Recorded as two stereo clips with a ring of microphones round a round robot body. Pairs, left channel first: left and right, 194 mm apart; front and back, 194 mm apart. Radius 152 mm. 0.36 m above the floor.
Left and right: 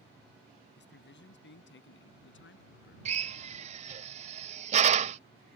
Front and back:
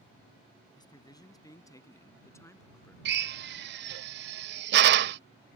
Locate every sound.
0.8 s a man speaking: 70° left; by 3.0 s 75° left
3.0 s a drill: 150° right